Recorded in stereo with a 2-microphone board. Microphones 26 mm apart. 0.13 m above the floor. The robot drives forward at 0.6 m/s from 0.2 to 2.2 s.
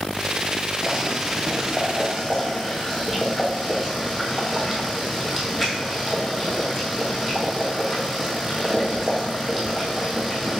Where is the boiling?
20° right (ahead or behind), 0.7 m; by 10.6 s 10° right (ahead or behind), 1.5 m.